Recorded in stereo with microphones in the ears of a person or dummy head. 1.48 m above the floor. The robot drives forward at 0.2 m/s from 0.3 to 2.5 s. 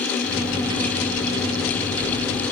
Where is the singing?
No singing in this recording.